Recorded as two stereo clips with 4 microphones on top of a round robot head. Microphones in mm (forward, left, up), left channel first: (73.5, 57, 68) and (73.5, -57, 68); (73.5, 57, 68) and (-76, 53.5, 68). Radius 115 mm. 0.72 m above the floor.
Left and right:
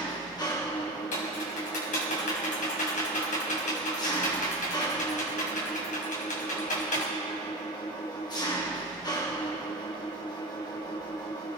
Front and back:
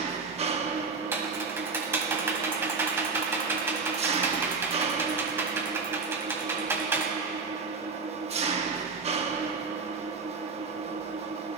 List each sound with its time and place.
0.0 s an engine running: 140° left, 1.4 m
1.1 s typing on a keyboard: 105° left, 2 m